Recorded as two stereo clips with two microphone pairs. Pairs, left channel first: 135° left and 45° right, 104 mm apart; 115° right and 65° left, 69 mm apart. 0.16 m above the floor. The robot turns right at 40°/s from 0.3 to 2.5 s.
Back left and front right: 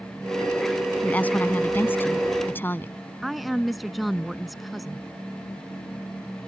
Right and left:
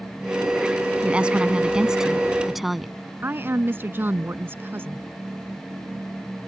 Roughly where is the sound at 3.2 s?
Ahead left.